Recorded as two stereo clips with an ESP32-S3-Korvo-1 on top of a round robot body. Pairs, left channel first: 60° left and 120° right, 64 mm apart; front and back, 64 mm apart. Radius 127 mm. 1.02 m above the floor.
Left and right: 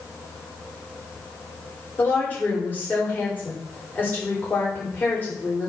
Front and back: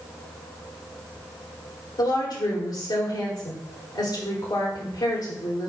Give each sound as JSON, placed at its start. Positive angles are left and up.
{"t": 2.0, "sound": "a woman speaking", "azimuth_deg": -5, "distance_m": 3.5}